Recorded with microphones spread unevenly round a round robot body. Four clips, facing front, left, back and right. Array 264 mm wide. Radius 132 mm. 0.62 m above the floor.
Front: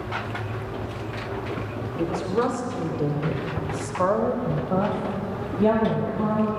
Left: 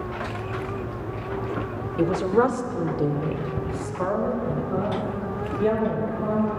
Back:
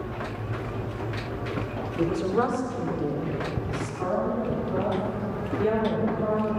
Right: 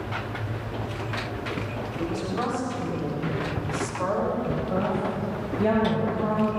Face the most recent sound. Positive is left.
turn(degrees=-20)